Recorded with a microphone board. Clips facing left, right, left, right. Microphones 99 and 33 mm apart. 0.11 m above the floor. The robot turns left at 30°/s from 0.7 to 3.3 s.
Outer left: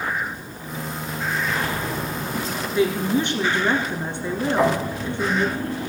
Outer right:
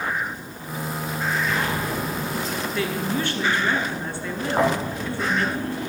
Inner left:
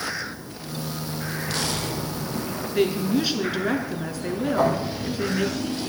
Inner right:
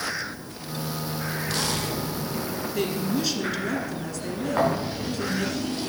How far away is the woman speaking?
About 1.4 m.